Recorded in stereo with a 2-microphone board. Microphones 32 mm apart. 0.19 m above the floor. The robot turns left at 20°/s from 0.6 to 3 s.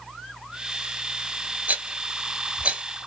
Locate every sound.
1.7 s a rattle: 60° right (ahead or behind), 1.1 m; by 2.8 s 35° right (ahead or behind), 1.1 m